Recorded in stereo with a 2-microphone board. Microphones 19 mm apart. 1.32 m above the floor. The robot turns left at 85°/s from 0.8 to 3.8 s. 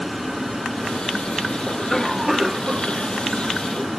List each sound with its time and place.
1.7 s a cough: 50° left; by 3.9 s 130° right